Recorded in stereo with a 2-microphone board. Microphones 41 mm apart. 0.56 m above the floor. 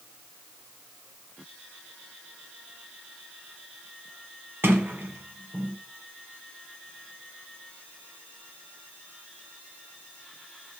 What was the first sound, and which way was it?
A sliding door, 70° right (ahead or behind).